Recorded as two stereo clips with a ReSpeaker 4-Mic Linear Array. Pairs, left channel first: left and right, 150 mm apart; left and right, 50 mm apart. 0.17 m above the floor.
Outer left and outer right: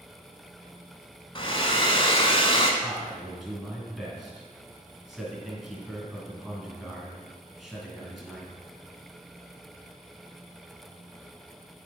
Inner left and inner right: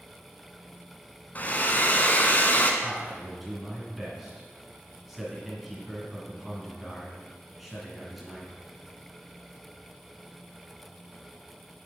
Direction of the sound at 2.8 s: Centre (ahead or behind).